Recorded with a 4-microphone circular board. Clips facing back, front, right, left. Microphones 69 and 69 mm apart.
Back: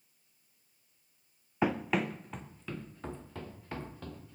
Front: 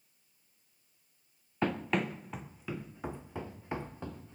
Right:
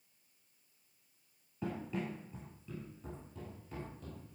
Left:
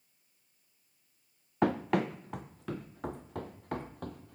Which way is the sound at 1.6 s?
100° left.